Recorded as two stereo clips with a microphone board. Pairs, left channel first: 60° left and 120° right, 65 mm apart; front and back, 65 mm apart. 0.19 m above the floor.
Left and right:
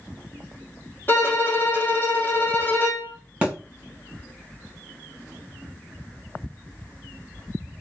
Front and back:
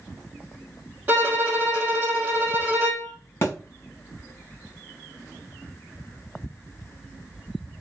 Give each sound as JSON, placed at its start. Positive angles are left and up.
{"t": 1.1, "sound": "a violin", "azimuth_deg": 115, "distance_m": 2.5}
{"t": 3.4, "sound": "a thud", "azimuth_deg": -50, "distance_m": 3.0}